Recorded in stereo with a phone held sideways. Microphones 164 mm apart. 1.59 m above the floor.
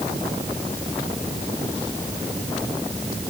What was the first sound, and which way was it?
Only background noise.